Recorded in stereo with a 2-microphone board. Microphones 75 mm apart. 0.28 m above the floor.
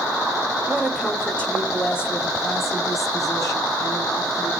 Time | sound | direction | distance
0.7 | a woman speaking | 5° right (ahead or behind) | 1.3 m